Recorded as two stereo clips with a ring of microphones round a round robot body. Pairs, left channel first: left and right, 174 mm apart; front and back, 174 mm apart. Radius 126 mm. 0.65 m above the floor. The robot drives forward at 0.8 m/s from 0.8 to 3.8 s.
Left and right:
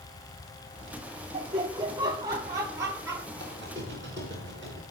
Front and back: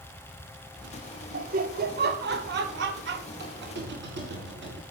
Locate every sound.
1.3 s laughter: 150° right, 1.2 m; by 3.3 s 170° right, 2.5 m
3.4 s a squeak: 165° left, 5.5 m